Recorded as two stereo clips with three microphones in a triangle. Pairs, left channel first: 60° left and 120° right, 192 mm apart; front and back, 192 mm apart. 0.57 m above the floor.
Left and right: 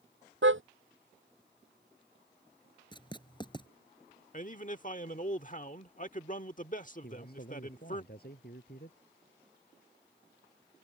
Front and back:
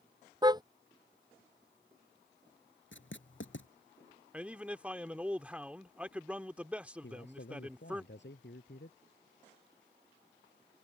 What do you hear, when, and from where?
0.4 s a car horn: 110° right
2.9 s writing: 5° right
4.3 s a man speaking: 95° left
7.0 s a man speaking: 25° left